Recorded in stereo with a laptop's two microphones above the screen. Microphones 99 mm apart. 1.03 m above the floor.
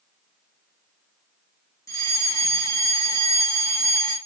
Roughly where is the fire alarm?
Left.